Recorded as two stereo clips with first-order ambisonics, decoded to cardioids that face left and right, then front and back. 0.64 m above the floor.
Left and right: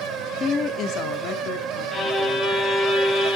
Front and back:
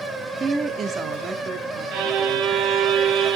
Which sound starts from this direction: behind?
A violin, at 1.9 s.